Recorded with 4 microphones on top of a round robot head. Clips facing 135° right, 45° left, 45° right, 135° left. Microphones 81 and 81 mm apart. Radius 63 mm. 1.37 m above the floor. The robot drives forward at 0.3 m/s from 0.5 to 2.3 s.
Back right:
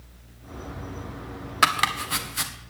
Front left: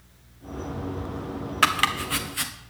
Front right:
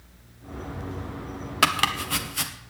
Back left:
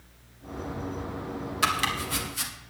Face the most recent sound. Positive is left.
turn(degrees=-70)